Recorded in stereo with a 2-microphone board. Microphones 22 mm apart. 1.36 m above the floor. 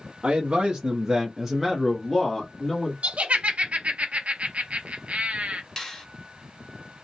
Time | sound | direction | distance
0.2 | a man speaking | 65° right (ahead or behind) | 0.7 m
3.0 | laughter | 75° right (ahead or behind) | 0.6 m
5.8 | a finger snap | 20° left (ahead or behind) | 1.6 m